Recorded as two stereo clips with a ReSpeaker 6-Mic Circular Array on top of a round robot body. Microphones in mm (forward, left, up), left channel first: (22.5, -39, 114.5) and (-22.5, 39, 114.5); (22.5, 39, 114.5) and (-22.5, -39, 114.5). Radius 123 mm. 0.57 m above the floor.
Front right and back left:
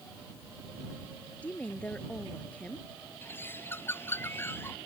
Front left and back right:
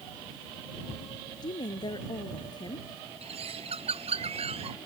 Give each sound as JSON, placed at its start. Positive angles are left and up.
{"t": 1.4, "sound": "a woman speaking", "azimuth_deg": 15}
{"t": 3.2, "sound": "a bird", "azimuth_deg": -130}